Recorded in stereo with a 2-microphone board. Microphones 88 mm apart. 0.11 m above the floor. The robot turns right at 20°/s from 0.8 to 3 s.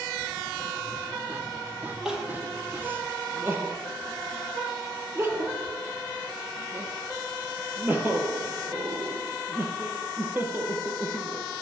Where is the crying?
5° right (ahead or behind), 0.5 m; by 11.4 s 25° right (ahead or behind), 0.5 m.